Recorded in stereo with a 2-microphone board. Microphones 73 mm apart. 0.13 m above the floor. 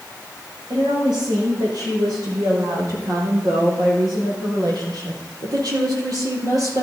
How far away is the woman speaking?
About 7 m.